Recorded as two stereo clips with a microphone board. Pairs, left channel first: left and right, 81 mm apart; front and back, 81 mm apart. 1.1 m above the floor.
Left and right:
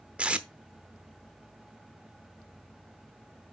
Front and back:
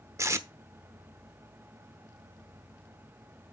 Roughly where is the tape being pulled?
Behind right.